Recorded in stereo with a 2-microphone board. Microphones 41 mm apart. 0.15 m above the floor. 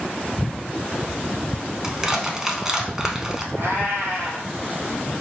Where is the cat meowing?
65° right (ahead or behind), 1.7 m.